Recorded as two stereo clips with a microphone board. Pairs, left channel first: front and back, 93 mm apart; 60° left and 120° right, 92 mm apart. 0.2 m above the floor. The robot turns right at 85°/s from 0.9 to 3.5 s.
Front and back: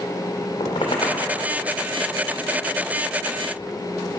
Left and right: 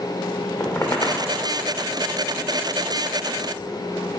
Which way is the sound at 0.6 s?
Straight ahead.